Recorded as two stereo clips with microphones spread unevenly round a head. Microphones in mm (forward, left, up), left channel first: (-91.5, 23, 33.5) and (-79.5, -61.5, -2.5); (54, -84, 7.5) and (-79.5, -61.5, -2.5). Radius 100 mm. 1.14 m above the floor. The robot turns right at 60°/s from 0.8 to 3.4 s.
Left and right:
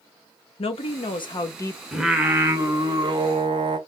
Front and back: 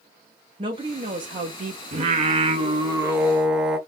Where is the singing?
170° left, 1.0 m; by 3.8 s 105° right, 1.0 m.